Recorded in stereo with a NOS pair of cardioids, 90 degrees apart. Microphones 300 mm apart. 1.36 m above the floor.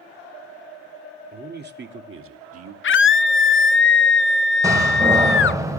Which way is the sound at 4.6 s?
10° right.